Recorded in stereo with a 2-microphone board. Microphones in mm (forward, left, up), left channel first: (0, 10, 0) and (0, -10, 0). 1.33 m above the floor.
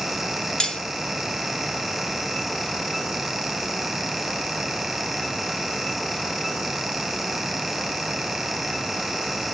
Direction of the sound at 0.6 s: 40° left (ahead or behind).